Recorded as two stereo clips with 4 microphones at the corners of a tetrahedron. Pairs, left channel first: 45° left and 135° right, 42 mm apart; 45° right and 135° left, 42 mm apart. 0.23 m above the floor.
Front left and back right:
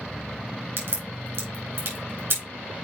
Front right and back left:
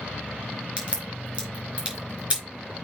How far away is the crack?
About 4 m.